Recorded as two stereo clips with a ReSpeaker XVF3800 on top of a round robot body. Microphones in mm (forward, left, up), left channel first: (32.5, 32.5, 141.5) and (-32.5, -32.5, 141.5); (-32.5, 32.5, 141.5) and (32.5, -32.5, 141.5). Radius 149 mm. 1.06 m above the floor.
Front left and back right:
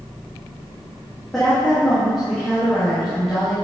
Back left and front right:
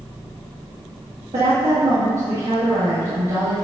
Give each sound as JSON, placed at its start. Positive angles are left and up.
{"t": 1.3, "sound": "a woman speaking", "azimuth_deg": -40, "distance_m": 1.5}